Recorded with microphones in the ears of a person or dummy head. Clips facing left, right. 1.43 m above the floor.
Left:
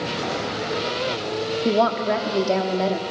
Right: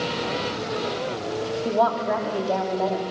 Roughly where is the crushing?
I don't hear crushing.